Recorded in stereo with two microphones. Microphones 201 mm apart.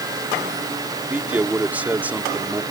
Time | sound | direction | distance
1.1 | a man speaking | 10° right (ahead or behind) | ?